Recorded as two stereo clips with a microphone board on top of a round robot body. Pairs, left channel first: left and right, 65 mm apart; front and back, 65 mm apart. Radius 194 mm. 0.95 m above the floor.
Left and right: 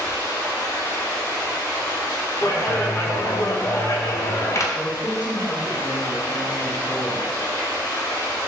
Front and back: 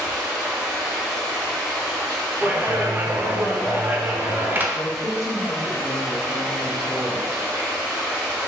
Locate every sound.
0.0 s running water: 120° left, 0.9 m
2.4 s a clap: 120° left, 0.6 m
4.7 s a woman speaking: 20° right, 1.2 m